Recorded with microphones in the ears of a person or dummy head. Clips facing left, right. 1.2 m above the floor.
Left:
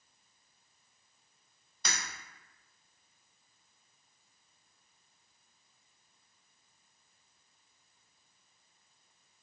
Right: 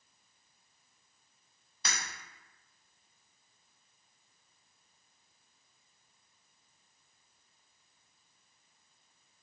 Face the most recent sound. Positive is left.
turn(degrees=0)  # may be behind; listen again after turning